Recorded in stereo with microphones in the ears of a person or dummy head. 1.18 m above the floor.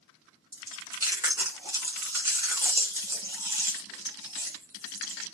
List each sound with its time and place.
0.5 s chewing: 15° right (ahead or behind), 0.9 m